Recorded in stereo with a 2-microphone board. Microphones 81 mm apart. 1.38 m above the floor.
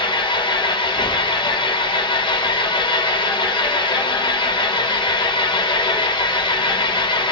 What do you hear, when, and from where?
0.0 s an engine running: 80° left, 1.0 m